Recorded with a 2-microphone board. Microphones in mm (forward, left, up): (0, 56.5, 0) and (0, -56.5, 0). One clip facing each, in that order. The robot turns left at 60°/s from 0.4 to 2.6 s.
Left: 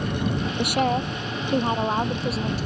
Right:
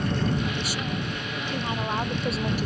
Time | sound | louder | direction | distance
0.6 | a woman speaking | left 8 dB | 105° left | ?